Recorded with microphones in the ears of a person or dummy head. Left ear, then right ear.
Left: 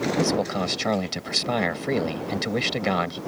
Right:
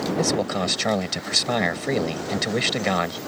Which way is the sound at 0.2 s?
5° right (ahead or behind).